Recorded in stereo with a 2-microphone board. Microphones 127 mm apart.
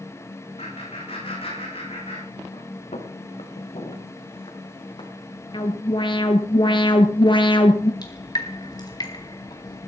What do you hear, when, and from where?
0.6 s laughter: 60° left (ahead or behind), 9 m
2.9 s footsteps: 70° left (ahead or behind), 3 m; by 5.1 s 45° left (ahead or behind), 4 m
5.5 s an alarm: 45° left (ahead or behind), 1.8 m
8.0 s dripping: 35° left (ahead or behind), 1.8 m